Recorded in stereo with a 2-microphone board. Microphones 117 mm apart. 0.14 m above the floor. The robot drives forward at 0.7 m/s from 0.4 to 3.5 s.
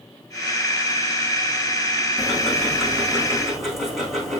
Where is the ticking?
Centre (ahead or behind), 5 m.